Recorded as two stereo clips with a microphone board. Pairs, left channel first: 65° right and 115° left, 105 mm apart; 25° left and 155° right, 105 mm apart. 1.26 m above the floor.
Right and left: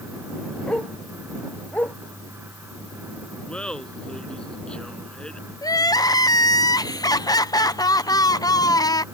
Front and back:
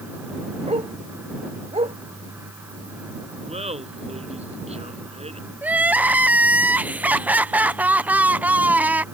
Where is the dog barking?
145° right; by 2.0 s 140° right.